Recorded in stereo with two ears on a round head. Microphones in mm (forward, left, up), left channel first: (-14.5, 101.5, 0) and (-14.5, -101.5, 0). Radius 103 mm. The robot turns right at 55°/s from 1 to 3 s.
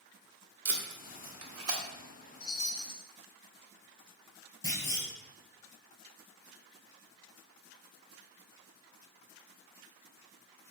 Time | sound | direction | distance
0.7 | tape being pulled | 55° right (ahead or behind) | 1.5 m
2.4 | a chime | 75° left | 1.4 m
4.6 | a clunk | 20° left (ahead or behind) | 2.5 m